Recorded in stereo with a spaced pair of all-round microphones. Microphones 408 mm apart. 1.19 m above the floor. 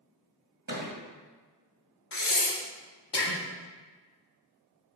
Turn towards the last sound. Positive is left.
turn(degrees=80)